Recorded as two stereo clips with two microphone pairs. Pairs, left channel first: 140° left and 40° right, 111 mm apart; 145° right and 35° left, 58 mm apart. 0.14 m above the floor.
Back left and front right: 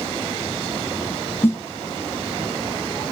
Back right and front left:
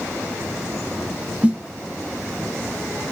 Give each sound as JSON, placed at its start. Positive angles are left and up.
{"t": 1.4, "sound": "a snare drum", "azimuth_deg": 90, "distance_m": 2.0}